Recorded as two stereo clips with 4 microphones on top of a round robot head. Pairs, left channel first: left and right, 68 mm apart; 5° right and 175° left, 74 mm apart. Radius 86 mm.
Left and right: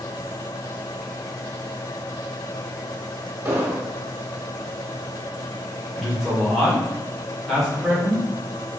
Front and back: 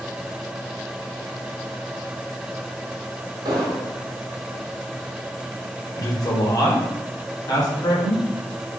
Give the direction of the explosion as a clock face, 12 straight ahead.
5 o'clock.